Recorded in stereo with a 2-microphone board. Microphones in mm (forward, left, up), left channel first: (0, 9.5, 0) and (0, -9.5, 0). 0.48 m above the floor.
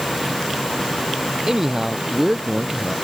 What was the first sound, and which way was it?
A man speaking, 25° right (ahead or behind).